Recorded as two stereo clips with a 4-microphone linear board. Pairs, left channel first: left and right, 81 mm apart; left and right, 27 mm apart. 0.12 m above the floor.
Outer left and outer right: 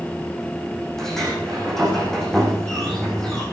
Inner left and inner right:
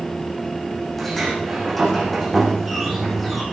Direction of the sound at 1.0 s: 5° left (ahead or behind).